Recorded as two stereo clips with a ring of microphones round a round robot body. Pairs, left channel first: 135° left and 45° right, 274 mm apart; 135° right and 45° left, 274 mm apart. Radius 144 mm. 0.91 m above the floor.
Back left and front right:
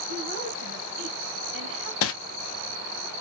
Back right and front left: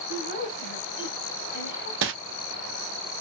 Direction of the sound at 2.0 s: 90° left.